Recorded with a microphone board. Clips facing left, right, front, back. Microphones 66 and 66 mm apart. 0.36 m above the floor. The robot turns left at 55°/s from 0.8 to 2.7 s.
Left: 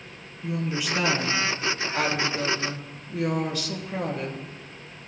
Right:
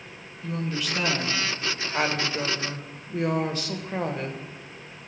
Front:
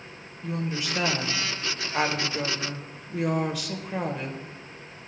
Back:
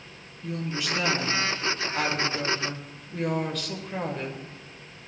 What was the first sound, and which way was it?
A woman speaking, 25° left.